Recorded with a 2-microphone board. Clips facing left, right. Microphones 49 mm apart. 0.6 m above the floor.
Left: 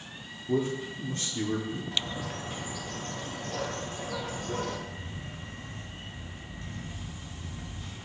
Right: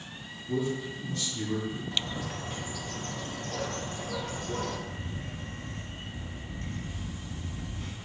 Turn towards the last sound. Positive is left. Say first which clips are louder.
# right 2 dB
turn(degrees=-60)  # may be behind; listen again after turning